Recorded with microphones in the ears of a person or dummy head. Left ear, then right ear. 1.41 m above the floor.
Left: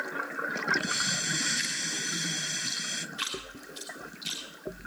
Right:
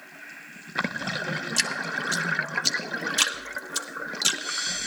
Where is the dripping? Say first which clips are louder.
Right 5 dB; 75° right (ahead or behind), 1.9 m.